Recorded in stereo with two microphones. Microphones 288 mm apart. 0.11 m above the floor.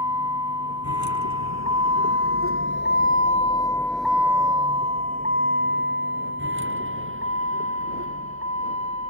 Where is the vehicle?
80° left; by 9.1 s 55° right (ahead or behind).